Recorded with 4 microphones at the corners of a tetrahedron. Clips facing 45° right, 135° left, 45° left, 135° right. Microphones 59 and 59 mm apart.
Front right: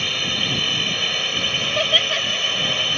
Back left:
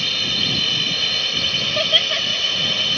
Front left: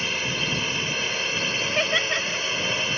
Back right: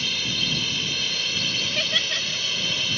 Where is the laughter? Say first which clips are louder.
Even, front left 5 dB; 35° left.